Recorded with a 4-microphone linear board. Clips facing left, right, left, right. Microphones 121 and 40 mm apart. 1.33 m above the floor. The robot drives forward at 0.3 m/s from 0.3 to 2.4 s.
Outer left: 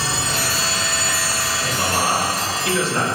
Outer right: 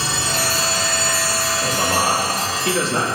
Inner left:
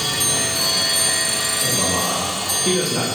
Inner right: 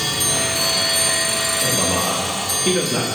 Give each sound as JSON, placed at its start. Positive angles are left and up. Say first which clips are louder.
{"t": 1.6, "sound": "a man speaking", "louder": "outer right 1 dB, inner right 1 dB", "side_deg": -40, "distance_m": 3.5}